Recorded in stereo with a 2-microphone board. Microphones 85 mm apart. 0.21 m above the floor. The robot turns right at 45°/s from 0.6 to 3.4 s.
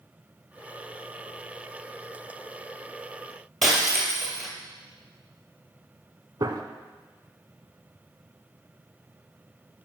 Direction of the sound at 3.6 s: Centre (ahead or behind).